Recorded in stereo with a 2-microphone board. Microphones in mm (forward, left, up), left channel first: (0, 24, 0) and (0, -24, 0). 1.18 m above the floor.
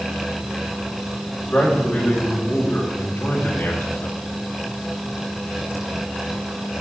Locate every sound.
1.4 s a man speaking: 15° left (ahead or behind), 4.5 m; by 4.2 s 55° left (ahead or behind), 1.7 m